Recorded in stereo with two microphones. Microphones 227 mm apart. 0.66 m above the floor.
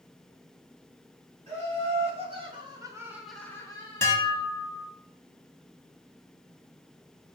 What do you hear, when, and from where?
1.5 s laughter: 25° right (ahead or behind), 2 m; by 4.4 s 25° left (ahead or behind), 1.3 m
4.0 s dishes clattering: 10° left (ahead or behind), 0.8 m